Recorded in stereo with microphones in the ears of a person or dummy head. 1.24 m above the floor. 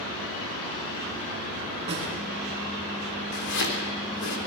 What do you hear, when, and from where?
1.9 s a snare drum: 30° right (ahead or behind), 5.5 m
3.3 s chopping: 60° left (ahead or behind), 3 m